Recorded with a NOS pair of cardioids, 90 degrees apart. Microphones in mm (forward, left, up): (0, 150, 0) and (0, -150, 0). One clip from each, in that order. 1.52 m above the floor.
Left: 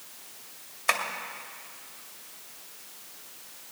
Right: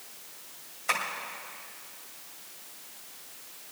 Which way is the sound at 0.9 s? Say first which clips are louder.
Left 3 dB; 45° left.